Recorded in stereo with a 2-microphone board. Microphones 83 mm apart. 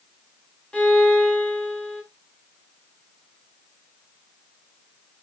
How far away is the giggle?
I don't hear a giggle.